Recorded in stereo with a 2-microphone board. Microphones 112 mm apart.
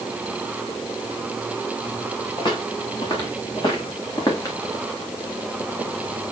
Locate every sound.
2.4 s footsteps: 40° left (ahead or behind), 5.5 m; by 4.6 s 30° left (ahead or behind), 2.5 m